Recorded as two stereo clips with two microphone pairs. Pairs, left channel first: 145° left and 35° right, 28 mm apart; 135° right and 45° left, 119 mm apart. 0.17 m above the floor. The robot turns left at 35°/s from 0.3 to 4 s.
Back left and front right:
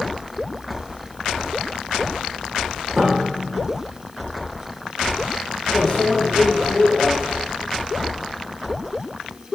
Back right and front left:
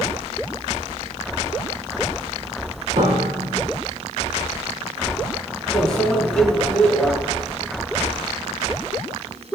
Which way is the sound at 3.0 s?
45° left.